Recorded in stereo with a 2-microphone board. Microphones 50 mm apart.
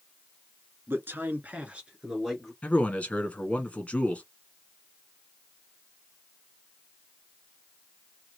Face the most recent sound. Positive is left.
turn(degrees=30)  # may be behind; listen again after turning